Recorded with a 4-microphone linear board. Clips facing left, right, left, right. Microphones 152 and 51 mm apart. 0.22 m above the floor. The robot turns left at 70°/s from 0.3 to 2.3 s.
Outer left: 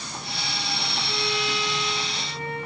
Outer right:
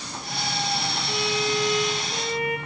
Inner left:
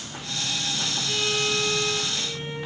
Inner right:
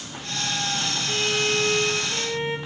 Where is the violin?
5° right, 4 m; by 2.6 s 90° right, 4 m.